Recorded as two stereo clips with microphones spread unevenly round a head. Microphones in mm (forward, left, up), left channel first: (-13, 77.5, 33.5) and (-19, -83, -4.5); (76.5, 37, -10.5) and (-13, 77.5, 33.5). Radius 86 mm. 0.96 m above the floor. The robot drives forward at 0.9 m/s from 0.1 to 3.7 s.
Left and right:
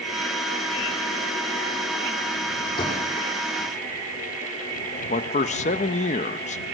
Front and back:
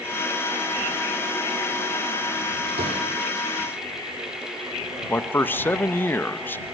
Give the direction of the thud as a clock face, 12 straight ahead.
7 o'clock.